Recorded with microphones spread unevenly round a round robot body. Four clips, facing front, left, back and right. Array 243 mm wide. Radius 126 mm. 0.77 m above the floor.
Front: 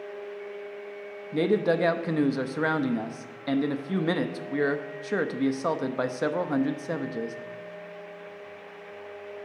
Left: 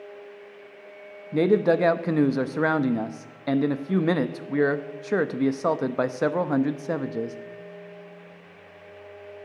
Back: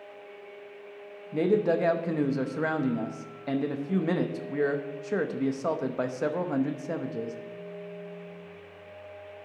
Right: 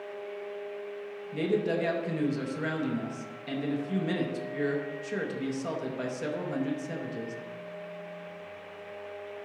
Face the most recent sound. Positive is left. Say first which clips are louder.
# left 8 dB, even
turn(degrees=65)